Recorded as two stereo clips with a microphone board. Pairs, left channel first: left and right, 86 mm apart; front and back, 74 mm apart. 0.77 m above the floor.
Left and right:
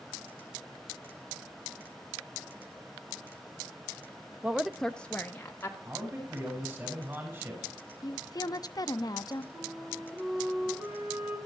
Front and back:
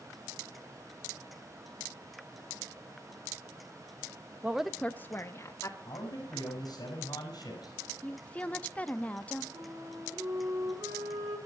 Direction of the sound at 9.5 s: 150° right.